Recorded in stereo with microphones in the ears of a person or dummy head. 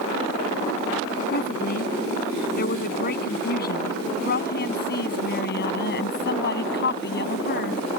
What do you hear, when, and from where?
1.3 s a woman speaking: 55° left (ahead or behind); by 7.9 s 60° left (ahead or behind)